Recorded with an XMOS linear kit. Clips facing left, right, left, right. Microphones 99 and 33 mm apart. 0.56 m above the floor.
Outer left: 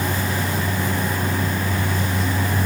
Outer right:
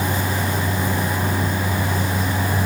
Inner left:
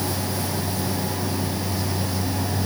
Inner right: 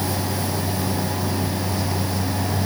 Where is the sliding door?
I don't hear a sliding door.